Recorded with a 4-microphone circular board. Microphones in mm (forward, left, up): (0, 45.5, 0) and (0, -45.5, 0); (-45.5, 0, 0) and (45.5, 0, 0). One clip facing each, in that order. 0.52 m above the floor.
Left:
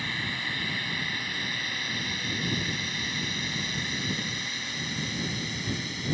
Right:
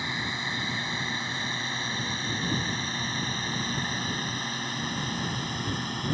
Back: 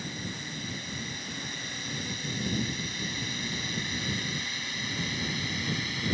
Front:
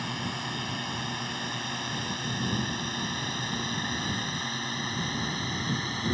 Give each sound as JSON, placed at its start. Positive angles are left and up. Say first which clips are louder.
{"t": 0.0, "sound": "a drone", "louder": "right 1 dB, front 5 dB", "azimuth_deg": -20}